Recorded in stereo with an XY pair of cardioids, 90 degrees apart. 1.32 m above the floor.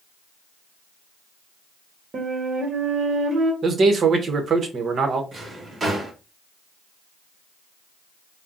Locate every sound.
2.1 s a flute: 55° right, 1.0 m
3.6 s a man speaking: 55° right, 1.0 m
5.3 s a drawer: 40° right, 1.5 m